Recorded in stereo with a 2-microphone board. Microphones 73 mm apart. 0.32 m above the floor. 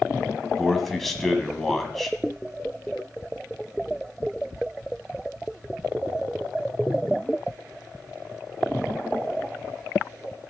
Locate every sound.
0.6 s a man speaking: 5° left (ahead or behind), 1.9 m